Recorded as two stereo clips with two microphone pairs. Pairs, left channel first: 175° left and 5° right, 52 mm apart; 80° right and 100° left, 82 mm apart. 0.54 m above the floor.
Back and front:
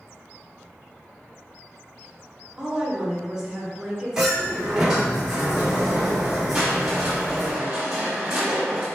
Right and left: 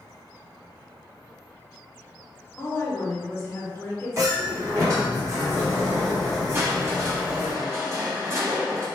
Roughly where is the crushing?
Left.